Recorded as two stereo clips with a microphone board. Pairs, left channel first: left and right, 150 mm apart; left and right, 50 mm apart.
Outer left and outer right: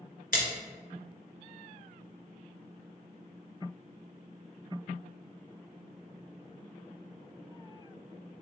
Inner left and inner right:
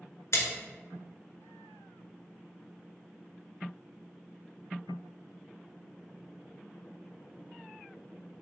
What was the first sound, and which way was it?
A splash, 70° left (ahead or behind).